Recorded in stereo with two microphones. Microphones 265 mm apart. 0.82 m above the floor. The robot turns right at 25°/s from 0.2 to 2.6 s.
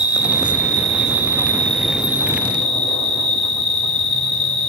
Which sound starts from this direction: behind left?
An insect, at 0.0 s.